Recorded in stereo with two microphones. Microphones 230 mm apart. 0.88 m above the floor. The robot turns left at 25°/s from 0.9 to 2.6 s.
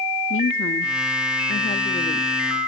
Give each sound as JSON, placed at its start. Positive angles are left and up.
{"t": 0.3, "sound": "a woman speaking", "azimuth_deg": 70, "distance_m": 1.2}